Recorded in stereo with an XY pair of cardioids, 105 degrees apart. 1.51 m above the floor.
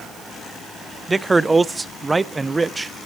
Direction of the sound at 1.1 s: 20° right.